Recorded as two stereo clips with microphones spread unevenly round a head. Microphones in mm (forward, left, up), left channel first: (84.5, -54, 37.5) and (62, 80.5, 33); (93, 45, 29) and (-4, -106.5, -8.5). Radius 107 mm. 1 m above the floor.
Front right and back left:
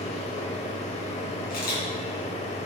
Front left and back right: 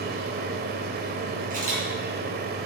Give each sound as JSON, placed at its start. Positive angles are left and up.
{"t": 0.0, "sound": "a machine running", "azimuth_deg": -100, "distance_m": 0.9}
{"t": 1.5, "sound": "a camera shutter", "azimuth_deg": -75, "distance_m": 4.0}